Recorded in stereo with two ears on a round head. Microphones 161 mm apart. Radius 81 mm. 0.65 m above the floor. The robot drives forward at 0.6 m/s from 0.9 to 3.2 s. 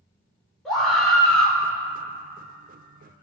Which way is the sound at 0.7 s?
5° left (ahead or behind).